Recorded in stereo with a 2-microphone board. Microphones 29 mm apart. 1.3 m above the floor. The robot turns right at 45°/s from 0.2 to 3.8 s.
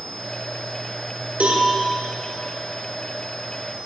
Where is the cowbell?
70° right (ahead or behind), 2.5 m; by 1.6 s 60° right (ahead or behind), 2.5 m.